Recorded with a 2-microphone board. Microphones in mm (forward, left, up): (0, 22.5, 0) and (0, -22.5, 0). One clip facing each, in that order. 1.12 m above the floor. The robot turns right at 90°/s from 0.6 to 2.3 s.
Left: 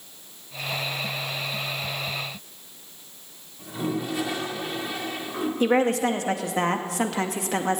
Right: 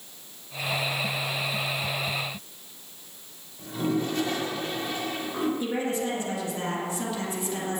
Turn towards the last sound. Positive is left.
turn(degrees=75)  # may be behind; listen again after turning